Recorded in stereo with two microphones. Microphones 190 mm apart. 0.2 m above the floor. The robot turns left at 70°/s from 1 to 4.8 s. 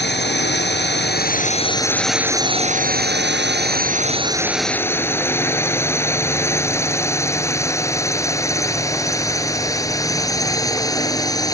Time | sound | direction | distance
0.0 | a drone | 65° left (ahead or behind) | ?